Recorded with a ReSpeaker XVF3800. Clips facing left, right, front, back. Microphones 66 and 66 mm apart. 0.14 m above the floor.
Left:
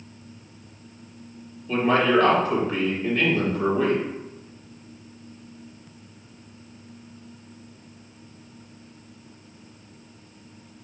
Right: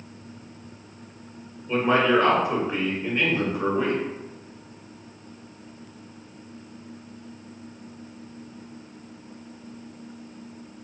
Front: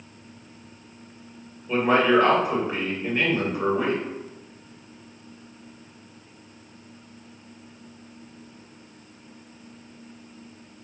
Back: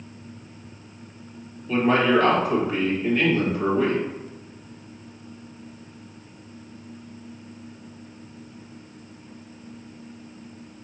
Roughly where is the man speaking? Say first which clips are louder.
Even, even; ahead right.